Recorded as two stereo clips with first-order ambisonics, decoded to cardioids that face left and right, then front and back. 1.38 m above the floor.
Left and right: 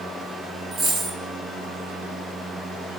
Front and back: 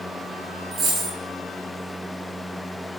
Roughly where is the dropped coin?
Behind right.